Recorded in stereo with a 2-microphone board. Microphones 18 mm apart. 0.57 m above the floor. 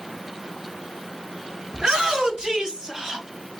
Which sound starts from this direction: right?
A shout, at 1.7 s.